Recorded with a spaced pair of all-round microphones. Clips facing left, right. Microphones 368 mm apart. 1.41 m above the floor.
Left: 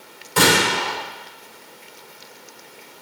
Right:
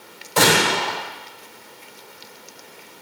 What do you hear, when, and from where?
0.4 s a gunshot: 30° left (ahead or behind), 4.5 m